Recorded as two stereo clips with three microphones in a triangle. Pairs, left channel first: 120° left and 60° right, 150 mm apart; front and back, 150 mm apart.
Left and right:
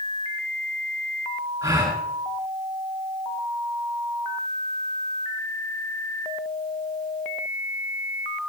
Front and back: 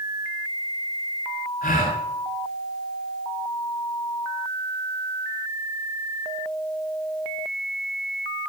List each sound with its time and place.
1.6 s a gasp: 5° left, 8 m